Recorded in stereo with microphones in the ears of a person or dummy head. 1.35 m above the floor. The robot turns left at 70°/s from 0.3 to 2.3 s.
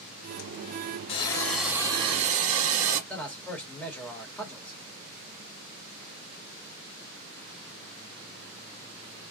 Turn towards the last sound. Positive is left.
turn(degrees=10)  # may be behind; listen again after turning